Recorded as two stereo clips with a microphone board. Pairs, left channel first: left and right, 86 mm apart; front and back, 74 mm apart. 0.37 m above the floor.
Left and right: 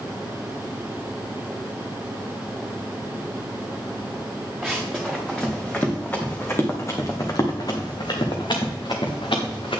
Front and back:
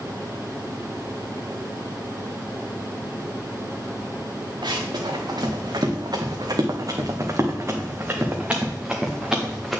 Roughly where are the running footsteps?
Behind.